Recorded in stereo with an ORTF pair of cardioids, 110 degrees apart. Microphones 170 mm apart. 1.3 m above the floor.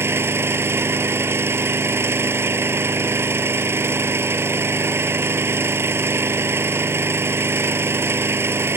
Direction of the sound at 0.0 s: 15° right.